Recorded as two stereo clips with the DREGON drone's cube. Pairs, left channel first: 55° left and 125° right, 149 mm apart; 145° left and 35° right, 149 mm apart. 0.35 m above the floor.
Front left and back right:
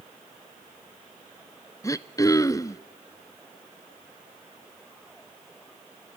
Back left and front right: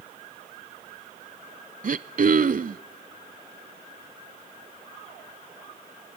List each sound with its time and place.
1.8 s throat clearing: 10° right, 0.6 m